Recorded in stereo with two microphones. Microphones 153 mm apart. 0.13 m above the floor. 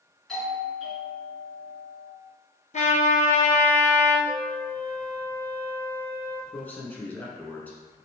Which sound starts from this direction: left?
A trumpet, at 2.7 s.